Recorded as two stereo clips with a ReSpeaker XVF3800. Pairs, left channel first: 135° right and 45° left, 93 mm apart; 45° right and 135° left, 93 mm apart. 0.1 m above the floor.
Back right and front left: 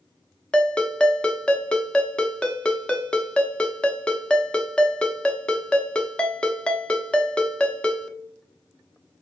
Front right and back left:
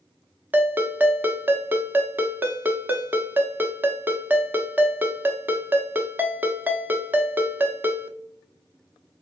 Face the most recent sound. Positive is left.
turn(degrees=165)